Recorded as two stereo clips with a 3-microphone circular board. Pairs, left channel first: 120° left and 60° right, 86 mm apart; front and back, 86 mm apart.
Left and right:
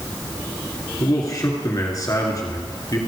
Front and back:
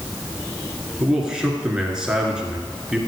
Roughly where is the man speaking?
Left.